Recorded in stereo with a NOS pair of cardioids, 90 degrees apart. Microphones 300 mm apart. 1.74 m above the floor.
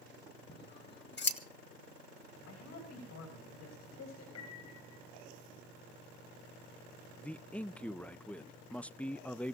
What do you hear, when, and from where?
0.5 s scissors: 40° left, 2.5 m
2.5 s a man speaking: 70° left, 7 m
4.3 s a piano: 65° left, 7 m
7.2 s a man speaking: 5° left, 0.5 m